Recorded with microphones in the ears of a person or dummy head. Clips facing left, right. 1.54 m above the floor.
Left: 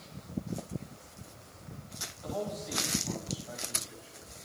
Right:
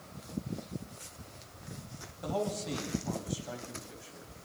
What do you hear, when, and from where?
2.2 s a man speaking: 55° right (ahead or behind), 8 m